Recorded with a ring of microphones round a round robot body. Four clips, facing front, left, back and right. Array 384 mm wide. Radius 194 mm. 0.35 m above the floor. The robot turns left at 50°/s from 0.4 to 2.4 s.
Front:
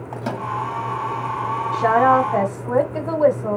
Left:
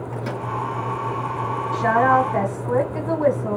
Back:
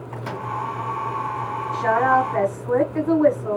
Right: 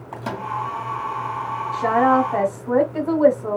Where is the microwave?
25° right, 2 m; by 0.5 s 30° right, 2 m.